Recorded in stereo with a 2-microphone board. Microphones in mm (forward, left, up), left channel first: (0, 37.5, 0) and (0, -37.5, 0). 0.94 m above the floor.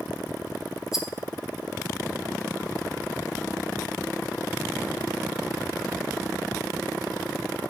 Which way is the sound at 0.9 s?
5° right (ahead or behind).